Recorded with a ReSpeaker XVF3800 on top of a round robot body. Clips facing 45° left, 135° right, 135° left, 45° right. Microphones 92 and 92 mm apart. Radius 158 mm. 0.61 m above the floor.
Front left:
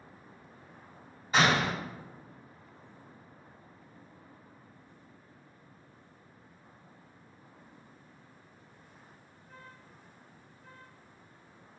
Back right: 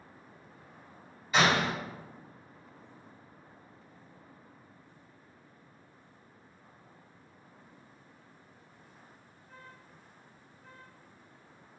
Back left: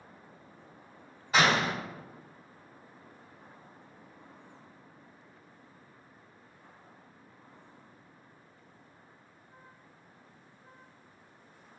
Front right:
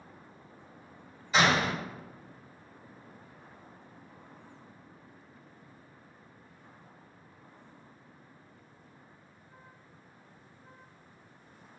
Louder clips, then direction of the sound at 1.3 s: Even, even; 100° left.